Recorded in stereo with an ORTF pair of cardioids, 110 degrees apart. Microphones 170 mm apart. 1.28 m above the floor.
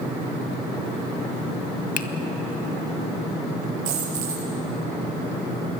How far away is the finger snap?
About 1.4 m.